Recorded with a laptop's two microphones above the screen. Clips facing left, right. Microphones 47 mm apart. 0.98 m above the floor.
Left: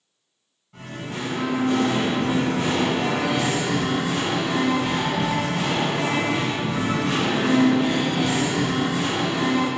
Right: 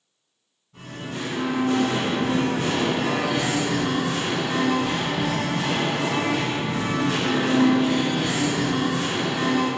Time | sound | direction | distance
0.7 | singing | 65° left (ahead or behind) | 1.9 m